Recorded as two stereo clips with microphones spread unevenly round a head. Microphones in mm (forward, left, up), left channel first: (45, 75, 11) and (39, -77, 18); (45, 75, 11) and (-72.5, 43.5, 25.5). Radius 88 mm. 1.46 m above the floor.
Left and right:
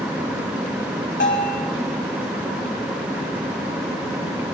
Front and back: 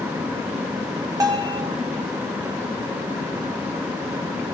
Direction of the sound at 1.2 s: 135° left.